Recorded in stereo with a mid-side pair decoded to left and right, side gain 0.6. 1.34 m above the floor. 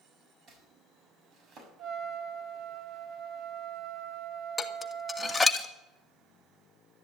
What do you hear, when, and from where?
0.5 s chopping: 40° right, 6.5 m
1.8 s a trumpet: 50° right, 1.9 m
4.6 s dishes clattering: 15° left, 1.9 m